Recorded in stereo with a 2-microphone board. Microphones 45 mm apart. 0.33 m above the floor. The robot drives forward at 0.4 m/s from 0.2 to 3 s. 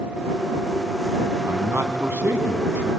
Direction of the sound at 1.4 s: 60° right (ahead or behind).